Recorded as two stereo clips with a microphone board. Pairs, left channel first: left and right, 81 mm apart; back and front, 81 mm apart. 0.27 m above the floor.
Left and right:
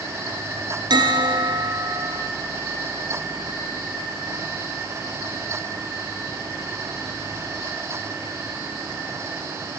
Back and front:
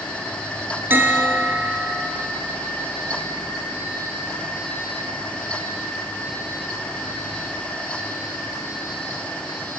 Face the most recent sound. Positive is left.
turn(degrees=-65)